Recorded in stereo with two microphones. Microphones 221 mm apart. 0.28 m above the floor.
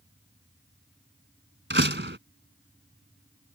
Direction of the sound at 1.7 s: 55° right (ahead or behind).